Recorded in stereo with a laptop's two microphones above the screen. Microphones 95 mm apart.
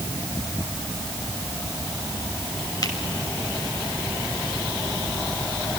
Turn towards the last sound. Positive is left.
turn(degrees=45)  # may be behind; listen again after turning